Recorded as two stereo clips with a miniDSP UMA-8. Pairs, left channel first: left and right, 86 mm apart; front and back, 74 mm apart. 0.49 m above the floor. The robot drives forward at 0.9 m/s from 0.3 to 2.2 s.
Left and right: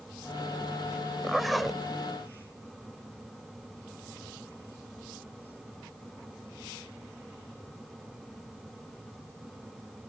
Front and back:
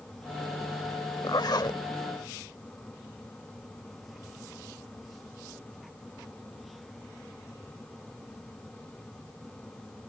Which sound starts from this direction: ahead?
A zipper, at 1.2 s.